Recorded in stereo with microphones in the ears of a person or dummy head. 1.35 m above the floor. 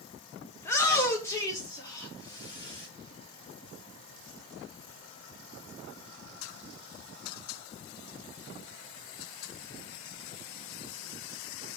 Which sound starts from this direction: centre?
A shout, at 0.6 s.